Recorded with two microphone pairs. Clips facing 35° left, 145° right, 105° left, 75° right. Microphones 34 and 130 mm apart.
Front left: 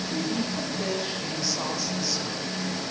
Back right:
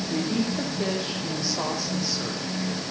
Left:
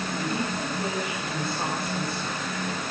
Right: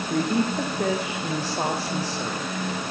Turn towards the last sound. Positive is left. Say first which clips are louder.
# back right 3 dB, right 8 dB
turn(degrees=-65)